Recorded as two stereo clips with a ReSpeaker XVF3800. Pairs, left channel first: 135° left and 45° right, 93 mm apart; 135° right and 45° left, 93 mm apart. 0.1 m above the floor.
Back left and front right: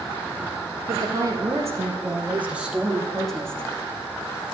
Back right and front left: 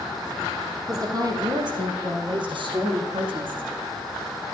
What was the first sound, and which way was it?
A woman speaking, straight ahead.